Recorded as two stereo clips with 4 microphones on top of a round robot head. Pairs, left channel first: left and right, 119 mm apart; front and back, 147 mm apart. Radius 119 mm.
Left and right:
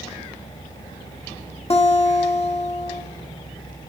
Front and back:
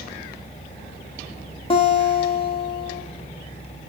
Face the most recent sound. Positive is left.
turn(degrees=55)